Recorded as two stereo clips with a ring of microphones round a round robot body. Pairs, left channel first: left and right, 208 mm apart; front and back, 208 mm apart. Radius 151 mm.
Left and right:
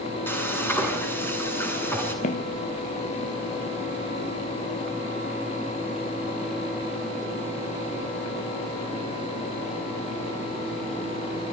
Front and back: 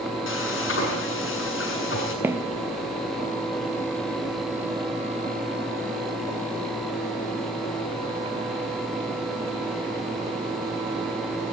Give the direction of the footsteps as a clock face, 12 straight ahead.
8 o'clock.